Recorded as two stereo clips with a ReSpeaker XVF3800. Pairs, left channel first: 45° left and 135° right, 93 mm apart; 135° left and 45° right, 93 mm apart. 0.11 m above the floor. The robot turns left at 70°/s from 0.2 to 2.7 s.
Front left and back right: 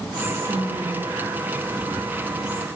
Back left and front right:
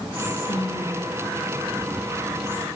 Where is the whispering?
145° left, 1.9 m; by 2.7 s 25° right, 1.9 m.